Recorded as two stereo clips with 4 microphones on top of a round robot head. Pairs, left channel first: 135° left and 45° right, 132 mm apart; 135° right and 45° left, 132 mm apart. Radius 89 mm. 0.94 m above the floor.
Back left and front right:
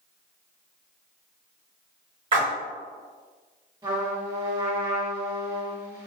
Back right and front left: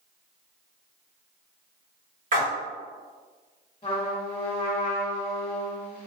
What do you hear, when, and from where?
2.3 s a splash: 10° left, 1.6 m
3.8 s a trumpet: 95° right, 1.4 m